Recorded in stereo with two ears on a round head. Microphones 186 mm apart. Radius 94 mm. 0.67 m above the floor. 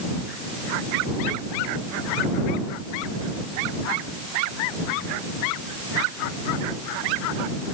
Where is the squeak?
I don't hear a squeak.